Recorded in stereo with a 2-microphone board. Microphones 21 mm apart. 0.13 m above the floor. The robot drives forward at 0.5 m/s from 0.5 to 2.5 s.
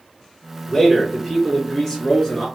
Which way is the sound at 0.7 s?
20° left (ahead or behind).